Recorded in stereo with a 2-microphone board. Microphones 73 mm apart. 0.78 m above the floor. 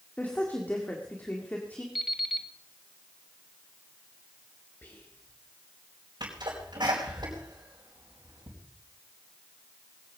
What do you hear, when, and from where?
0.2 s a woman speaking: 20° left (ahead or behind), 1.9 m
1.9 s an alarm clock: 5° right (ahead or behind), 1.9 m
4.8 s whispering: 25° left (ahead or behind), 3.5 m
6.2 s a sneeze: 75° right (ahead or behind), 4.5 m